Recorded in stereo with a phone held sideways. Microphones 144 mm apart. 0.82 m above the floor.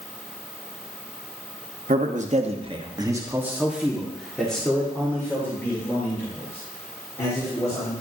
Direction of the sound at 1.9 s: 65° right (ahead or behind).